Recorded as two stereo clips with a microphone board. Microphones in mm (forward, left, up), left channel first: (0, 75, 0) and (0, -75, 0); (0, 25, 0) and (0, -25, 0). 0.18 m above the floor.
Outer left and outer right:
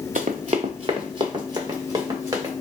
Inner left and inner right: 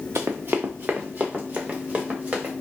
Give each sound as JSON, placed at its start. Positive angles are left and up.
{"t": 0.1, "sound": "running footsteps", "side_deg": -60, "distance_m": 0.8}